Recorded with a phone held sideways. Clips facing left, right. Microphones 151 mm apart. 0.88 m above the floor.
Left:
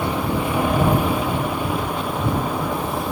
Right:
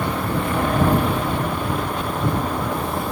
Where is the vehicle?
10° left (ahead or behind); by 3.1 s 5° left (ahead or behind).